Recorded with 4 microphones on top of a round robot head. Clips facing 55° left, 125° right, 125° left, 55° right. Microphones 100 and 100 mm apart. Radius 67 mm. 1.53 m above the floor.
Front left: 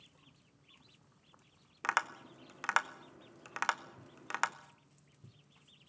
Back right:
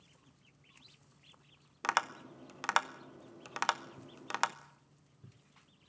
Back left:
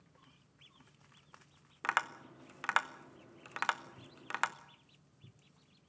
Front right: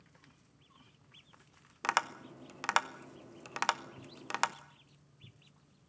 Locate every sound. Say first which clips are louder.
1.8 s tapping: back right 1 dB, front right 2 dB; 80° right, 0.6 m